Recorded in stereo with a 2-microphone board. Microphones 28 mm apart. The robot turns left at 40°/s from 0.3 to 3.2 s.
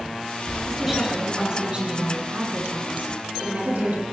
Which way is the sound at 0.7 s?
Straight ahead.